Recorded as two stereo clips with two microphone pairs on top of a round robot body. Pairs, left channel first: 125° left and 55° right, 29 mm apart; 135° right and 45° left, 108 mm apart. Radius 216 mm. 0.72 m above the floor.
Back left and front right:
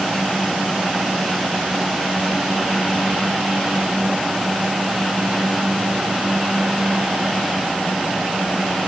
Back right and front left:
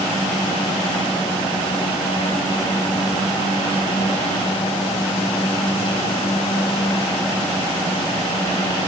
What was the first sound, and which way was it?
Only background noise.